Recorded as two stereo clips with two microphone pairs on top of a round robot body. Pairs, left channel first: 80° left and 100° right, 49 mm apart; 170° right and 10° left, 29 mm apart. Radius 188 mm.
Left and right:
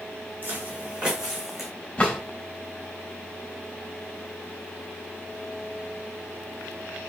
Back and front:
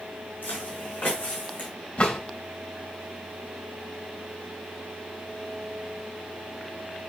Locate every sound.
0.4 s footsteps: 150° right, 2.5 m; by 1.7 s 175° left, 3 m
2.0 s a drawer: 150° left, 3.5 m